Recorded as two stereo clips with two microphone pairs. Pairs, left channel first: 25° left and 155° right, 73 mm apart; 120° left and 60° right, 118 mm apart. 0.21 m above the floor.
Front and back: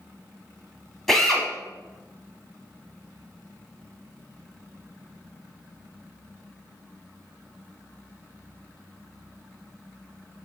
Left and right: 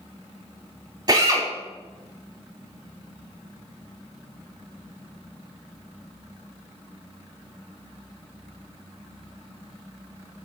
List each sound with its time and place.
1.1 s a drill: 55° right, 0.9 m